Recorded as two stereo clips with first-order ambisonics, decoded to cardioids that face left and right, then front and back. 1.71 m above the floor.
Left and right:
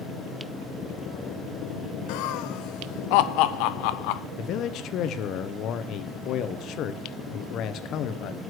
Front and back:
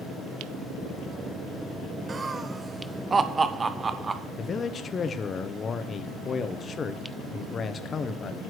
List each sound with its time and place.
2.1 s laughter: 105° left, 0.7 m
4.4 s a man speaking: 60° left, 0.7 m